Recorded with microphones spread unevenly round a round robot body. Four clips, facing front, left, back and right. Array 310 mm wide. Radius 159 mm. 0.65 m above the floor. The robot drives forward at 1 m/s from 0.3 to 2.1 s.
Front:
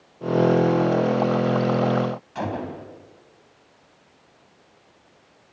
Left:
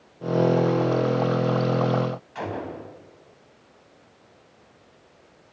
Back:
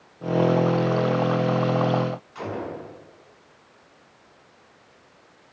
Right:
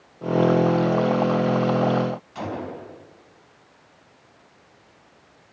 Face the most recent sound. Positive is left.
turn(degrees=-15)